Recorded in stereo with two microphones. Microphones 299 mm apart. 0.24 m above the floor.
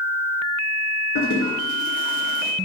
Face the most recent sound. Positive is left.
turn(degrees=80)